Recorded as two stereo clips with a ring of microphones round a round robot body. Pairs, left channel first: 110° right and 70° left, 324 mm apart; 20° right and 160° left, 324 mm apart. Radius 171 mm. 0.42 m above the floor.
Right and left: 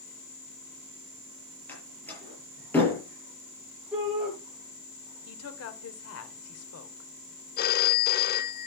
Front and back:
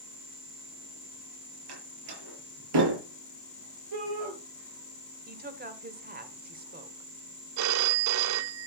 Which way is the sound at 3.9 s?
155° left.